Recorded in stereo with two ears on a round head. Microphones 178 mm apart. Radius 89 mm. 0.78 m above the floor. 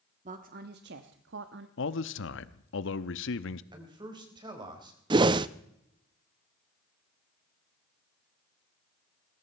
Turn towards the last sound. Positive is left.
turn(degrees=-25)  # may be behind; listen again after turning